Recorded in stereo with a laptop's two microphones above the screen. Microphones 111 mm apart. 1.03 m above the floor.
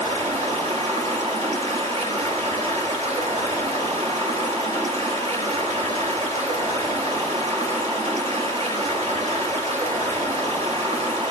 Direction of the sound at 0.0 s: 80° right.